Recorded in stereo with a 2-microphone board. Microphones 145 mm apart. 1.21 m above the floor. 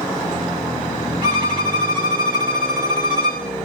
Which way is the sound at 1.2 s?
30° right (ahead or behind).